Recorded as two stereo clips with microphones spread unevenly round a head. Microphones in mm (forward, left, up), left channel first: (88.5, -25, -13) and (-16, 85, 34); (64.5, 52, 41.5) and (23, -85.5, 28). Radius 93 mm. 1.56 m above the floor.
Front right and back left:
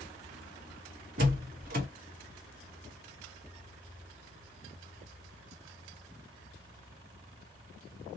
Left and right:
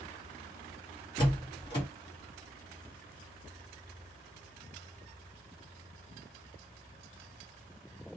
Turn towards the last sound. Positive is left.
turn(degrees=135)